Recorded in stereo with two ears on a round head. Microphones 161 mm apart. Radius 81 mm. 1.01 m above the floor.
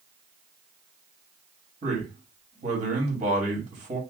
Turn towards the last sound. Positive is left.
turn(degrees=-35)  # may be behind; listen again after turning